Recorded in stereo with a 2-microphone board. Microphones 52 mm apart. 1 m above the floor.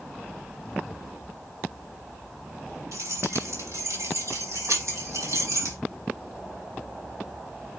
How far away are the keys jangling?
About 5.5 m.